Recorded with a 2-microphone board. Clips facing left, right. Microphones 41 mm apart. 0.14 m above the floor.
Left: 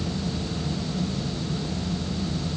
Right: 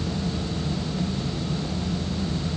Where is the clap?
No clap in this recording.